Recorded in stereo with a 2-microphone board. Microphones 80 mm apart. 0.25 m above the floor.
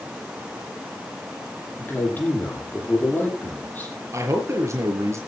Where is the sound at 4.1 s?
35° right (ahead or behind), 5 m.